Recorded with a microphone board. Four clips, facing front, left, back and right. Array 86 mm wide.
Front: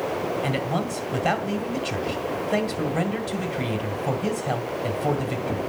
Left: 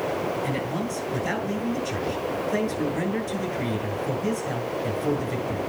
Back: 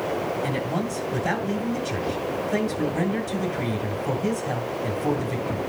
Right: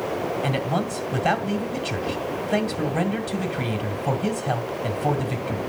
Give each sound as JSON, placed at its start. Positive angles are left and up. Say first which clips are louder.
{"t": 0.4, "sound": "a man speaking", "louder": "right 3 dB, front 1 dB", "azimuth_deg": -50, "distance_m": 2.0}